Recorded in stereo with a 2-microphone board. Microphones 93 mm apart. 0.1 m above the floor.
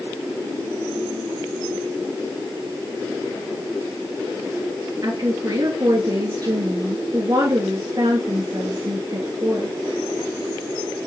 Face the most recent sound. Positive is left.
turn(degrees=-45)  # may be behind; listen again after turning